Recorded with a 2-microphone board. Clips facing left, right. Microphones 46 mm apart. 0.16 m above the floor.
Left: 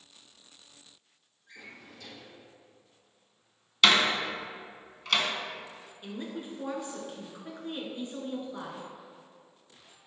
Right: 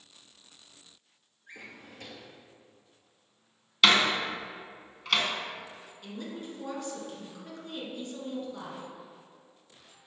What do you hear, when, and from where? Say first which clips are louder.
1.5 s a drawer: right 1 dB; 45° right (ahead or behind), 1.3 m
3.8 s a door slam: even; 5° right (ahead or behind), 0.9 m
6.0 s a woman speaking: left 1 dB; 20° left (ahead or behind), 1.8 m